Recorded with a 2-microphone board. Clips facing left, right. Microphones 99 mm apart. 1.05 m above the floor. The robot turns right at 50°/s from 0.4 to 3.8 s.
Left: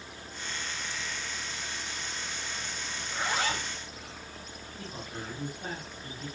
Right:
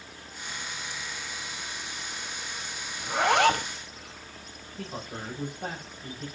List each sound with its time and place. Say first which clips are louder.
3.0 s a zipper: right 10 dB; 100° right, 1.4 m; by 3.7 s 65° right, 1.4 m
4.8 s a man speaking: right 4 dB; 50° right (ahead or behind), 9 m